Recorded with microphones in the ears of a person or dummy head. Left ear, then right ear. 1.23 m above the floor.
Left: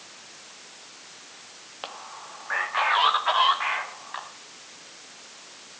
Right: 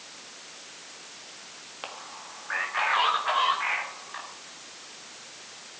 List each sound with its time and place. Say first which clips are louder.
1.8 s a man speaking: left 2 dB; 20° left (ahead or behind), 1.6 m; by 4.3 s 45° left (ahead or behind), 3 m